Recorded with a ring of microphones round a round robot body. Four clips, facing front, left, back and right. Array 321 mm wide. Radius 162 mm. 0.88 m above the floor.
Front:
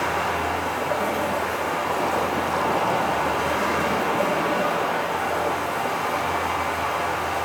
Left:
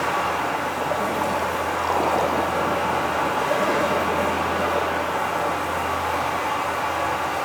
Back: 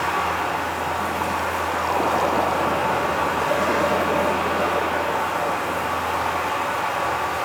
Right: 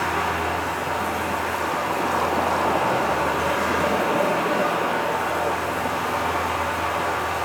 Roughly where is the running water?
Ahead right.